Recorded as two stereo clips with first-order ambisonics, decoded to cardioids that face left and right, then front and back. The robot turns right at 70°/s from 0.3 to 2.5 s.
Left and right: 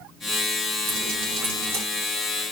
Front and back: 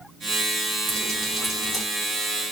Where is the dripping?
130° right, 4 m; by 1.8 s 65° right, 4 m.